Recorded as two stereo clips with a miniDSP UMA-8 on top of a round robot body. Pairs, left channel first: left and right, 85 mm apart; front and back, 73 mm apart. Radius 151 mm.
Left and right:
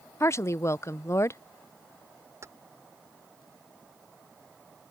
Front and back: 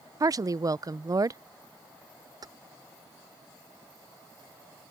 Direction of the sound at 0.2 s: 145° left.